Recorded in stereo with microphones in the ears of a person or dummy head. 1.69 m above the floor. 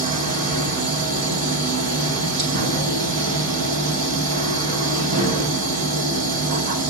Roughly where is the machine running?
Right.